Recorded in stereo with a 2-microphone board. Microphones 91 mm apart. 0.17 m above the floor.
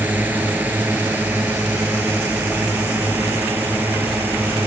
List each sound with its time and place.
0.0 s a drone: 20° right (ahead or behind)